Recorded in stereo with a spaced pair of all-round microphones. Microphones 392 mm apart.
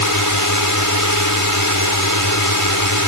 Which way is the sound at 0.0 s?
50° left (ahead or behind).